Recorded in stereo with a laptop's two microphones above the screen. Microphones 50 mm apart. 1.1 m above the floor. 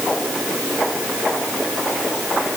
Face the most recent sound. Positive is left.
No sound to turn to.